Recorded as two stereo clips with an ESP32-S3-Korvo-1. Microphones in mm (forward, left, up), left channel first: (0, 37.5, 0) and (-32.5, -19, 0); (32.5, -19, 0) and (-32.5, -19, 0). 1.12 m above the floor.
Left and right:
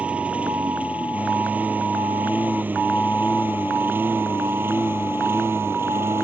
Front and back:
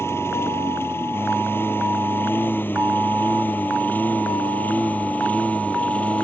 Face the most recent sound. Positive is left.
turn(degrees=-65)